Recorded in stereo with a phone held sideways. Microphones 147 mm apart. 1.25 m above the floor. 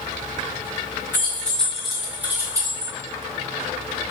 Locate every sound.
1.1 s keys jangling: 15° left (ahead or behind), 1.6 m; by 2.9 s 35° right (ahead or behind), 1.0 m